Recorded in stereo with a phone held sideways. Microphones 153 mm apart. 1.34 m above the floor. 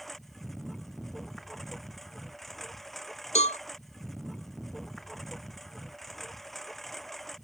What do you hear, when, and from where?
0.0 s a lawn mower: centre (ahead or behind)
3.4 s a cowbell: 50° left (ahead or behind)